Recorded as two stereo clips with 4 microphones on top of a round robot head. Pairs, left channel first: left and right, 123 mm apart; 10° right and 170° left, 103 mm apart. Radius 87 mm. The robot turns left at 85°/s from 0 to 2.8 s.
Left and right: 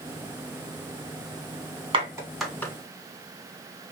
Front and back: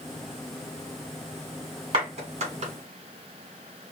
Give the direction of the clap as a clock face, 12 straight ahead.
5 o'clock.